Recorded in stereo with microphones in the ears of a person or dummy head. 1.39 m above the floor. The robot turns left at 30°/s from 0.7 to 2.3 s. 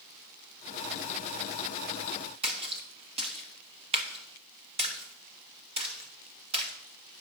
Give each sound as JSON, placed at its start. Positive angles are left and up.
{"t": 2.4, "sound": "a splash", "side_deg": -35, "distance_m": 1.0}